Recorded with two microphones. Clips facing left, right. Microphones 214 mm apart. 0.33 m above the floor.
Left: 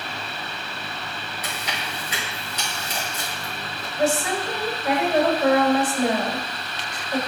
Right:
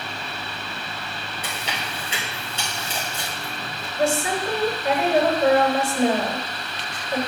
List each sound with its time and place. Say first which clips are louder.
1.4 s chewing: right 1 dB; 25° right (ahead or behind), 3 m
4.0 s a woman speaking: even; 25° right (ahead or behind), 1.6 m